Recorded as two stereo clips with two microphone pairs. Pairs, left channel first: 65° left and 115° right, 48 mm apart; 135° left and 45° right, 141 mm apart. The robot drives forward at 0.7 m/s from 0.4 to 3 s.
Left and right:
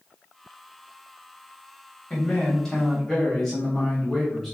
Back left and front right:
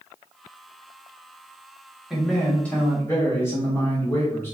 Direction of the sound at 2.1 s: 40° left.